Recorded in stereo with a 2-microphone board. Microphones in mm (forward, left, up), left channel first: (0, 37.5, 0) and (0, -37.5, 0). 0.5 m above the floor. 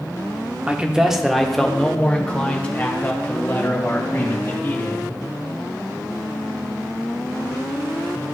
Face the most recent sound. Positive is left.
turn(degrees=30)  # may be behind; listen again after turning